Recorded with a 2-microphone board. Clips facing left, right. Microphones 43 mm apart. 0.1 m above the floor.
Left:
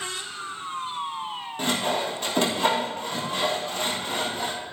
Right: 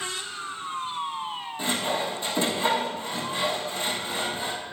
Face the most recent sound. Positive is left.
turn(degrees=55)  # may be behind; listen again after turning